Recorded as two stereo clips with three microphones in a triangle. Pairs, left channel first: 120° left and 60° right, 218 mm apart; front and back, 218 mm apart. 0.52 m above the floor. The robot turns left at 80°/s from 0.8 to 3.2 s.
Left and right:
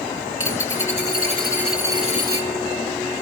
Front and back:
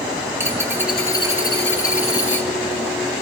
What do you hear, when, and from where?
0.4 s a dropped coin: 100° left, 2 m; by 2.5 s 35° right, 2 m